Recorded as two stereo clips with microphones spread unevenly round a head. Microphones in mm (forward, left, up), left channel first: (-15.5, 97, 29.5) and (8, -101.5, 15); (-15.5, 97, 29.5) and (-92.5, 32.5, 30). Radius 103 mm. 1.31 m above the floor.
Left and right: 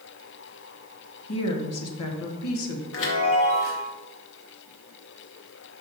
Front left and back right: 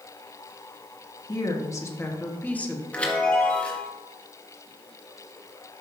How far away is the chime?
About 2 m.